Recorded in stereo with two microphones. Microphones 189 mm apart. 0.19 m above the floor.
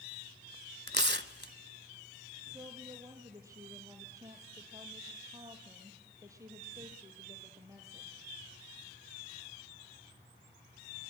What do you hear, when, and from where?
0.9 s tearing paper: 65° right (ahead or behind), 0.6 m
2.5 s a woman speaking: 15° right (ahead or behind), 4.5 m